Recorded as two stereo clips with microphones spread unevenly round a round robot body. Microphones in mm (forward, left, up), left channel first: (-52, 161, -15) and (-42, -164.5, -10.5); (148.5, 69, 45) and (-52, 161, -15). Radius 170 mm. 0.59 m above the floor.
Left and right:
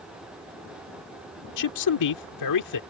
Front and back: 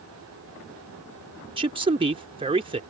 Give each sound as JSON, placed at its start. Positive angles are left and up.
{"t": 1.6, "sound": "a man speaking", "azimuth_deg": 105}